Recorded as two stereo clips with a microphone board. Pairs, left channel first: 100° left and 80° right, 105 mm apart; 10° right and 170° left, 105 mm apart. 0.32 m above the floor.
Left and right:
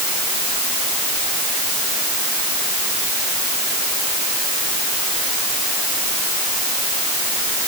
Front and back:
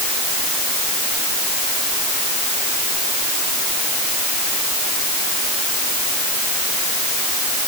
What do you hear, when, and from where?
Only background noise.